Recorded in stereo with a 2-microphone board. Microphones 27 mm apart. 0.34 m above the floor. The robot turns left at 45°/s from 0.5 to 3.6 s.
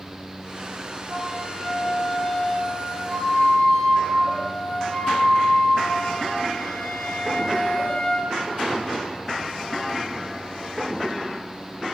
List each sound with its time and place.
1.1 s a flute: 160° left, 1.5 m; by 8.3 s 45° left, 1.5 m